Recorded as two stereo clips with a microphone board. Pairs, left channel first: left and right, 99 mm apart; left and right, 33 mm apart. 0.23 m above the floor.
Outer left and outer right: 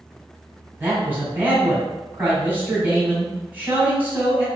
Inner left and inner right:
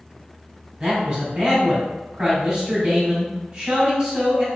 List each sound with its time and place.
0.8 s a man speaking: 20° right (ahead or behind), 1.4 m